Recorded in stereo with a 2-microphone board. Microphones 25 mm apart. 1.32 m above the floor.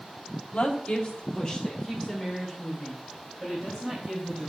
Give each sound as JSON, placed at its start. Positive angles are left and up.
{"t": 0.5, "sound": "a woman speaking", "side_deg": 60, "distance_m": 1.2}